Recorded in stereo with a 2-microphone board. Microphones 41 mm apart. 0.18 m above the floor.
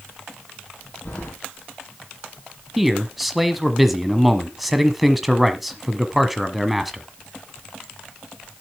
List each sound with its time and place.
1.1 s keys jangling: 60° left (ahead or behind), 4 m
2.8 s a man speaking: centre (ahead or behind), 1.2 m